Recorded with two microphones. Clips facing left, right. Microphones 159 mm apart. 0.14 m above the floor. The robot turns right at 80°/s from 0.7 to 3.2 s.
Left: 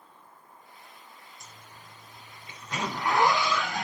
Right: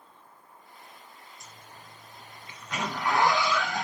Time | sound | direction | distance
1.4 | a zipper | centre (ahead or behind) | 1.9 m